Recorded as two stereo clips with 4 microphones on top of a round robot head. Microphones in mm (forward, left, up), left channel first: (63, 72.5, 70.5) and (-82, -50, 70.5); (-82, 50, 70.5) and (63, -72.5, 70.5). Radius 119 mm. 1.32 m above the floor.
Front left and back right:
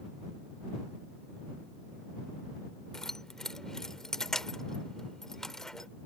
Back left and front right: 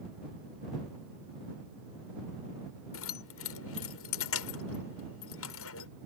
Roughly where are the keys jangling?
Behind left.